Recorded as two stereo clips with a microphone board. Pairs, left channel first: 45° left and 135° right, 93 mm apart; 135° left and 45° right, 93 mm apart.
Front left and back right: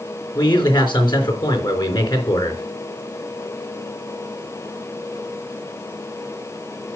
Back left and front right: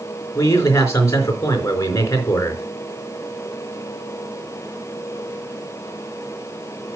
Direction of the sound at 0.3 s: 75° left.